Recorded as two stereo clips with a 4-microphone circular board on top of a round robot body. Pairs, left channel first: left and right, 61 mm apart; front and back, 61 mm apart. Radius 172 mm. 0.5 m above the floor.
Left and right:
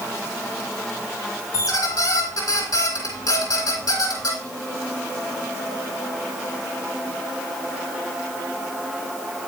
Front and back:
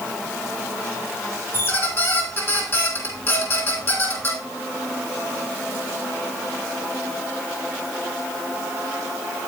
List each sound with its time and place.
1.5 s a squeak: 55° left, 2.5 m